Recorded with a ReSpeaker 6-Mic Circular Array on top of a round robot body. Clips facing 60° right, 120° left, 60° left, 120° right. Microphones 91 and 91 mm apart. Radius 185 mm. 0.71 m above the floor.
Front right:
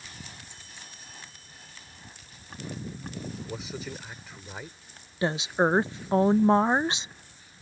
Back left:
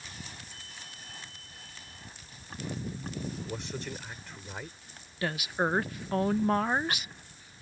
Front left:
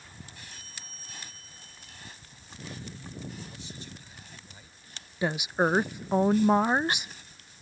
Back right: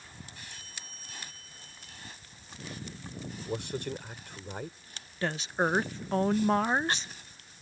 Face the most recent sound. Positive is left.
turn(degrees=-10)